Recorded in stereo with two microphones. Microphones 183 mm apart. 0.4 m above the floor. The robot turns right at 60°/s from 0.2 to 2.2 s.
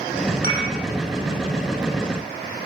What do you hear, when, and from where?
0.4 s dishes clattering: 55° right (ahead or behind), 9 m; by 0.7 s 70° right (ahead or behind), 9 m